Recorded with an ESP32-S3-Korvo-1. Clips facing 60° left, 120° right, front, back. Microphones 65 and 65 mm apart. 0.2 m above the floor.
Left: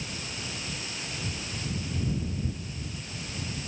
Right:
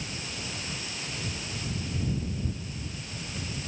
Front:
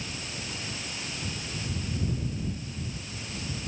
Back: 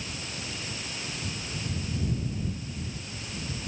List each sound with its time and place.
Only background noise.